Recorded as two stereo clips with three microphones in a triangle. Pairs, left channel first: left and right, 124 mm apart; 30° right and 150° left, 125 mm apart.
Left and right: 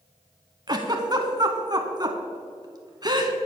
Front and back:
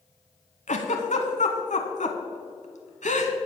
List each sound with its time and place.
0.7 s a giggle: 35° right, 0.9 m